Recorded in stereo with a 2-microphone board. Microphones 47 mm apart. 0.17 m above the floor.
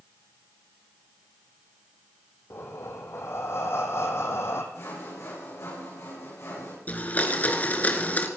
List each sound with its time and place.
2.5 s breathing: 60° left (ahead or behind), 2.5 m
4.7 s sawing: 80° left, 9 m
6.9 s a blender: 30° left (ahead or behind), 1.8 m